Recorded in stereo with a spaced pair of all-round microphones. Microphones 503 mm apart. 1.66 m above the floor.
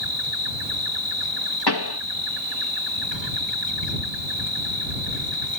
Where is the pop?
50° left (ahead or behind).